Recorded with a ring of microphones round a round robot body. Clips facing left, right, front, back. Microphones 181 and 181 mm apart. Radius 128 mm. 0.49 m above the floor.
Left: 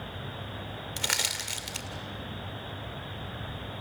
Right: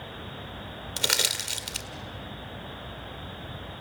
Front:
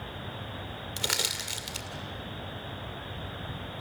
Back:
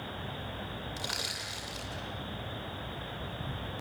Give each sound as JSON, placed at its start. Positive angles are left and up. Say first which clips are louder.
{"t": 1.0, "sound": "crushing", "louder": "right 4 dB, front 4 dB", "azimuth_deg": -40, "distance_m": 2.0}